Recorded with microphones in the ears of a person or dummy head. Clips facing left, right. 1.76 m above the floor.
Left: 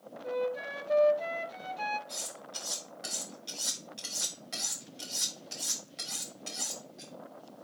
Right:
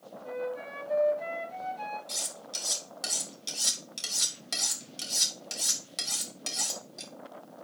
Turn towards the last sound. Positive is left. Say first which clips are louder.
# right 1 dB
turn(degrees=-70)  # may be behind; listen again after turning